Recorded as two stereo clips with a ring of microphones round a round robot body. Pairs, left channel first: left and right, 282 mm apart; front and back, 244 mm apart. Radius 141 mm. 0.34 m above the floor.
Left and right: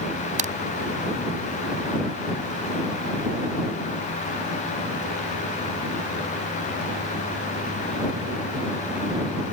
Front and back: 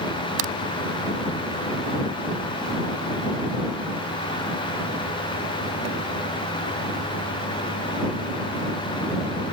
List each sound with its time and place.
0.4 s a crack: 155° right